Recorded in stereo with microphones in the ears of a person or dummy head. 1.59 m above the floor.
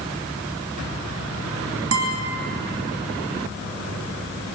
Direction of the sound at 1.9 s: 70° right (ahead or behind).